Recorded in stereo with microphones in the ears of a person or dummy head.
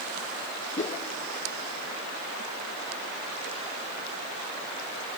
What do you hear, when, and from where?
0.8 s a whoosh: 40° left (ahead or behind), 0.9 m